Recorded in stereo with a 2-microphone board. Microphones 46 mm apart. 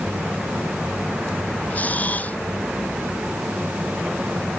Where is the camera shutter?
35° left (ahead or behind).